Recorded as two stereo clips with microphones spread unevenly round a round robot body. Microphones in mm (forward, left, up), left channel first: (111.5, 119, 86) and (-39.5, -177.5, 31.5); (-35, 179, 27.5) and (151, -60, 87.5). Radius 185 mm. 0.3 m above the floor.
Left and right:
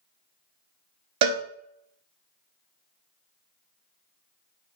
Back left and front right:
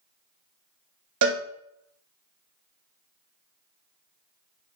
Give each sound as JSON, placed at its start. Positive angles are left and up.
{"t": 1.2, "sound": "a cowbell", "azimuth_deg": -95, "distance_m": 0.9}